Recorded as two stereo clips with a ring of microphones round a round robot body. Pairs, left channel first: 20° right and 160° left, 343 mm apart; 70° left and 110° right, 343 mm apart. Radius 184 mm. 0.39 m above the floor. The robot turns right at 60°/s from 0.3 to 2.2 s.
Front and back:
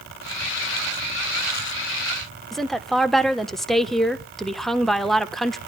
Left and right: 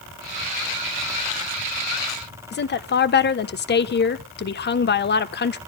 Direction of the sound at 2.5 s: 65° left.